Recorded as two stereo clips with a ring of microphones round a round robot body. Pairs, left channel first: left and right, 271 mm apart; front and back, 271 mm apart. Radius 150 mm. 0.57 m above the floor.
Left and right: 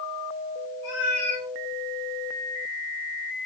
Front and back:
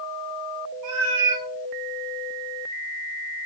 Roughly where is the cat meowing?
Behind.